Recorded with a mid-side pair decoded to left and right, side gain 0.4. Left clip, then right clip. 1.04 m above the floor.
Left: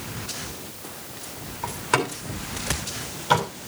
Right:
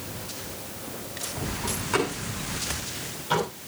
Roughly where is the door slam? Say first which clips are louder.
Left 3 dB; ahead left.